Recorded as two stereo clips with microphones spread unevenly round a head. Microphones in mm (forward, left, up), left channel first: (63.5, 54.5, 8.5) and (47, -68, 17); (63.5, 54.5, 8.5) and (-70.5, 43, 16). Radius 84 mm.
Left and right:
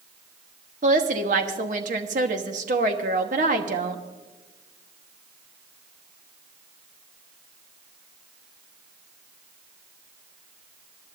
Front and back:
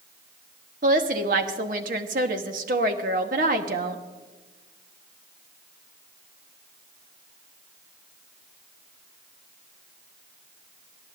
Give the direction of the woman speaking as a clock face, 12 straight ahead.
5 o'clock.